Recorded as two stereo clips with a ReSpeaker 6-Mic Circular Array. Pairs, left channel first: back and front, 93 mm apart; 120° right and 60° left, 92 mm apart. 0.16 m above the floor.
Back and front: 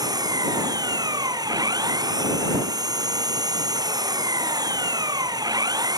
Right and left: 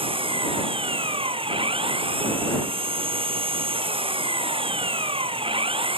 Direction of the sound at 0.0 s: 45° left.